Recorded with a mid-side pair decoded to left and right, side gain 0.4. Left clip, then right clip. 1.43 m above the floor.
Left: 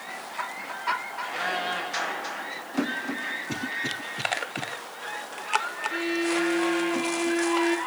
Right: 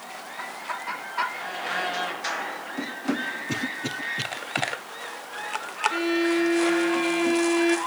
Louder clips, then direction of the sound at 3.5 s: Even; 15° right.